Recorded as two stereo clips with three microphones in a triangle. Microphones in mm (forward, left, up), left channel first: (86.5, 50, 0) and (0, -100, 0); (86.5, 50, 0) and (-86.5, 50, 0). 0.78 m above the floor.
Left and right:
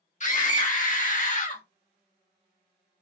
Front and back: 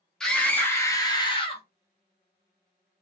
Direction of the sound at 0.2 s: 85° left.